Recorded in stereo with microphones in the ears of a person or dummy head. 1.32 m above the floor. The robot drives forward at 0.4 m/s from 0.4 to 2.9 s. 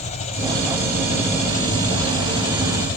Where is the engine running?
40° left (ahead or behind), 3.5 m; by 3.0 s 50° left (ahead or behind), 3 m.